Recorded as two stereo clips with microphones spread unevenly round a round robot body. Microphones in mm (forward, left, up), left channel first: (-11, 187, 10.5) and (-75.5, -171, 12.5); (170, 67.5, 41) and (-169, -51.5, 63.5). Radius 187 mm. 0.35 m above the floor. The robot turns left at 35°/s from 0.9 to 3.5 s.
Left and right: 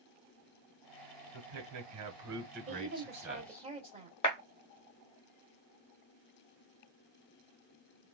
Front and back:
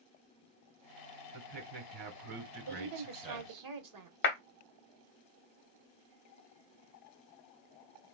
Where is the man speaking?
120° right, 1.9 m; by 3.7 s 165° left, 1.9 m.